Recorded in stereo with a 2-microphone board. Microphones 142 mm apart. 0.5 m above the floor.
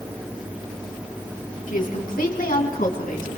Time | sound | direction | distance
1.7 | a woman speaking | 70° left (ahead or behind) | 4.5 m